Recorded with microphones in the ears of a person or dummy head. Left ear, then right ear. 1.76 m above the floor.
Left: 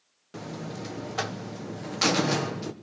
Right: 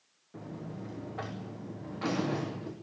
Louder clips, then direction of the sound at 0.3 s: Left 7 dB; 75° left (ahead or behind).